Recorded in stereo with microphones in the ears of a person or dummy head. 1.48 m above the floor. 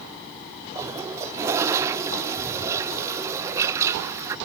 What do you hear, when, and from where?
0.8 s a toilet flushing: 15° right (ahead or behind), 0.5 m